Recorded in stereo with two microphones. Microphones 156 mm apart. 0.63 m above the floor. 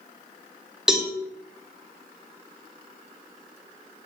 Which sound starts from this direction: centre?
A cowbell, at 0.9 s.